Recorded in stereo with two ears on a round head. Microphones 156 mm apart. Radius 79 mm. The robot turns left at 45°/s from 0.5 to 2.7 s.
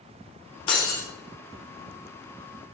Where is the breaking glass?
30° left (ahead or behind), 1.3 m; by 1.1 s 10° left (ahead or behind), 1.3 m.